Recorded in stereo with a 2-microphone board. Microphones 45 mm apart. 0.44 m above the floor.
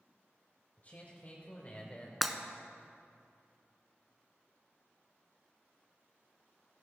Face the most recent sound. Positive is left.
turn(degrees=0)  # may be behind; listen again after turning